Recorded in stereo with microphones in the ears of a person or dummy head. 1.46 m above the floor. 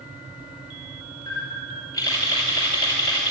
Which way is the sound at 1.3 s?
15° left (ahead or behind).